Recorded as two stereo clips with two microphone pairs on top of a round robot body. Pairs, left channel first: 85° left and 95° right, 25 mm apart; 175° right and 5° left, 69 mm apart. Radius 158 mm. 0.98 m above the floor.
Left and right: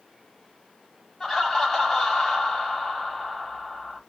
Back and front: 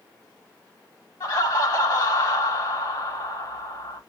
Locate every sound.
1.2 s laughter: 165° left, 2.5 m